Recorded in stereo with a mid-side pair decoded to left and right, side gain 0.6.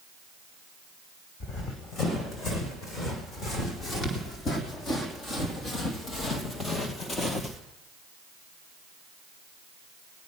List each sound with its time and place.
1.4 s running footsteps: 45° left, 4.5 m; by 7.6 s 30° left, 1.6 m